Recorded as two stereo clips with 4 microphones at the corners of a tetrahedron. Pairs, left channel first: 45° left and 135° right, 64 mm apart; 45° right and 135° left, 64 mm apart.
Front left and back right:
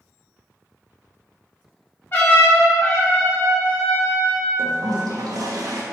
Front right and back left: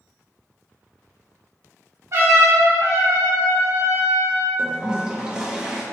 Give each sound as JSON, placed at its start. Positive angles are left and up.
{"t": 2.1, "sound": "a trumpet", "azimuth_deg": 100, "distance_m": 1.4}
{"t": 4.6, "sound": "a toilet flushing", "azimuth_deg": -150, "distance_m": 0.7}